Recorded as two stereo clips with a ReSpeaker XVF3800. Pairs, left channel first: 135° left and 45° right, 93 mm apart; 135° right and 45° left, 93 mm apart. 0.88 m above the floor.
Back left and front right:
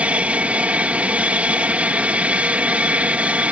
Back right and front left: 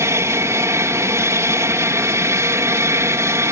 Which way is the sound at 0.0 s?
20° left.